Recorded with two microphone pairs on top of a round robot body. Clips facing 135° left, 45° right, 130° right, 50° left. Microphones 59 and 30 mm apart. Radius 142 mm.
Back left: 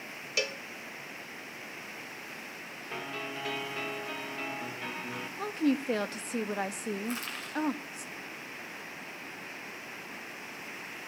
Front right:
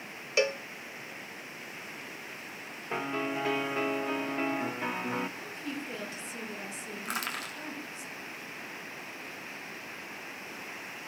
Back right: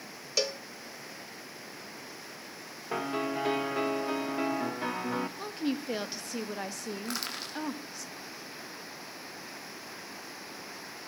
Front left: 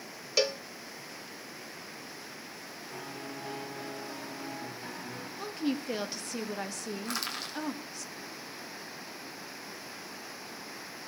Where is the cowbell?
5° left, 0.5 m.